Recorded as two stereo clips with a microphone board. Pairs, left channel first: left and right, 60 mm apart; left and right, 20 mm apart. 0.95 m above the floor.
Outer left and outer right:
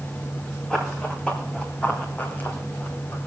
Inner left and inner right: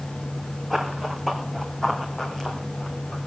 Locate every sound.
0.7 s running footsteps: 15° left (ahead or behind), 3 m; by 3.2 s 40° left (ahead or behind), 2.5 m